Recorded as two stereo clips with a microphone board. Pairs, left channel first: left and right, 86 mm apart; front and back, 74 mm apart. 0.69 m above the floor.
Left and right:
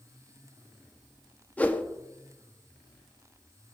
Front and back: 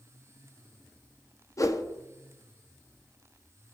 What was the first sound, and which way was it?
A whoosh, 20° left.